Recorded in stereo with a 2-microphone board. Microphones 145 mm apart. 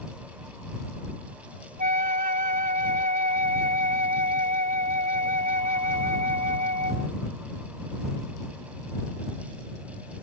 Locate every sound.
1.8 s a flute: 75° right (ahead or behind)